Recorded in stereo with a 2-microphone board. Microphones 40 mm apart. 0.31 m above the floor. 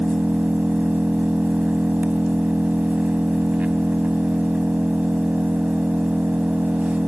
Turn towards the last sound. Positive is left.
turn(degrees=-35)  # may be behind; listen again after turning